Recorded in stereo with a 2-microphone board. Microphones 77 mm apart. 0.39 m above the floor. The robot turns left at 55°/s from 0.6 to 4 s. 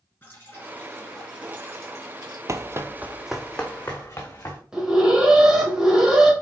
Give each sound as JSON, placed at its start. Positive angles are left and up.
{"t": 0.2, "sound": "dripping", "azimuth_deg": 25, "distance_m": 3.0}
{"t": 2.5, "sound": "running footsteps", "side_deg": -40, "distance_m": 0.6}
{"t": 4.7, "sound": "an alarm", "side_deg": -10, "distance_m": 2.0}